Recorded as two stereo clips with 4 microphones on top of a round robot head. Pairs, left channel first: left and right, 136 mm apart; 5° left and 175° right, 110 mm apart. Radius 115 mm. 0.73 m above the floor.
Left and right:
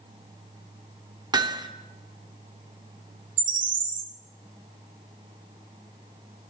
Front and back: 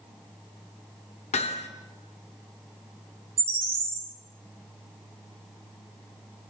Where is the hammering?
30° right, 1.0 m.